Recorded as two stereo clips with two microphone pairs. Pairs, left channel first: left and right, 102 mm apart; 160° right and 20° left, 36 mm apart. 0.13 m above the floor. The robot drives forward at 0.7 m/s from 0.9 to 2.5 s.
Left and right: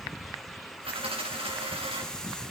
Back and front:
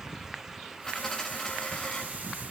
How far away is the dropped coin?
About 3 m.